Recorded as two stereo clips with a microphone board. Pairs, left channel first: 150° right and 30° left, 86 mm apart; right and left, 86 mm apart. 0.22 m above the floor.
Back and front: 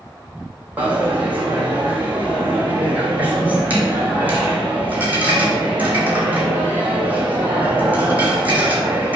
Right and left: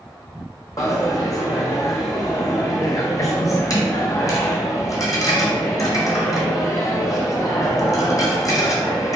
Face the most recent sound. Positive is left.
turn(degrees=-40)